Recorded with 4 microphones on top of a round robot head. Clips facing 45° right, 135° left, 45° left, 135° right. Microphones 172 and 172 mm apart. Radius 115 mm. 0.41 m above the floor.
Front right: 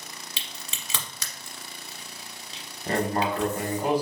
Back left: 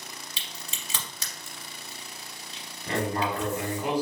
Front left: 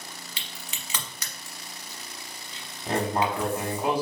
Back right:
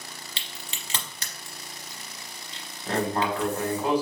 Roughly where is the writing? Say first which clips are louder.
Front right 2 dB, even; ahead right.